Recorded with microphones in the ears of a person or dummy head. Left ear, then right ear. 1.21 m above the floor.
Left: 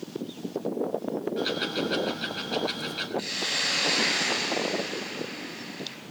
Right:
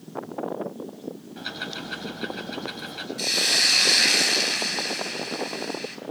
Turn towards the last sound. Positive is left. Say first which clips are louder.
# right 9 dB
turn(degrees=-40)  # may be behind; listen again after turning